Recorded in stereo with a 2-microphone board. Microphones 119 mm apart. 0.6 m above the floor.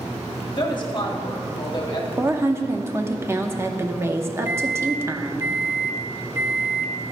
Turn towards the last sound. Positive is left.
turn(degrees=-20)  # may be behind; listen again after turning